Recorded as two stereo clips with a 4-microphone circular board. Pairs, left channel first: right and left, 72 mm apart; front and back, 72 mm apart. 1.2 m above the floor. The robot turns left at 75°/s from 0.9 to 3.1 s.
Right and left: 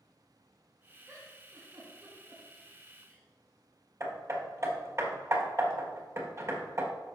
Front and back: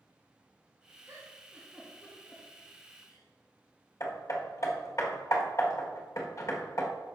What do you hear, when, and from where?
1.1 s a giggle: 145° left, 3.5 m; by 3.3 s 10° right, 3.5 m
4.0 s hammering: 40° left, 1.6 m